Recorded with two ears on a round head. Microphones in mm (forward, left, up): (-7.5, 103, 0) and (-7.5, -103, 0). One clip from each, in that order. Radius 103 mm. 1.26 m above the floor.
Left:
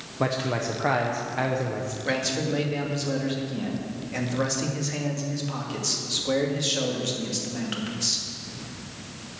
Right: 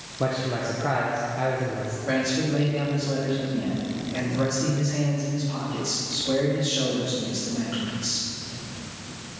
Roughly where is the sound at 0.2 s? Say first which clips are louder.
Even; left.